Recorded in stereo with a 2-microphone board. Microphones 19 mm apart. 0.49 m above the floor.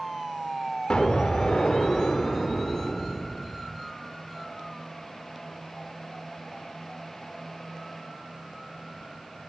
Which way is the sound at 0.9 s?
50° left (ahead or behind).